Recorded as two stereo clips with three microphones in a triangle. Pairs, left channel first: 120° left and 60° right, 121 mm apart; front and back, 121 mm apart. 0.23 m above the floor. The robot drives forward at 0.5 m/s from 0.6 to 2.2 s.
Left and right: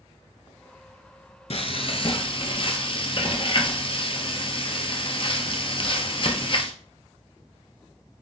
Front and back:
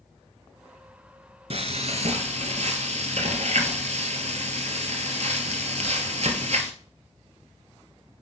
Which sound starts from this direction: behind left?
Frying, at 1.5 s.